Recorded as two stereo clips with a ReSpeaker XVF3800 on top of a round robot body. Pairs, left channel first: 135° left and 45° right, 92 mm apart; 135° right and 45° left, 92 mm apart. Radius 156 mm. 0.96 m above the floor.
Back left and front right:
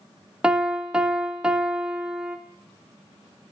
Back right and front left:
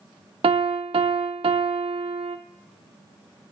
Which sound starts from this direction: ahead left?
A piano, at 0.4 s.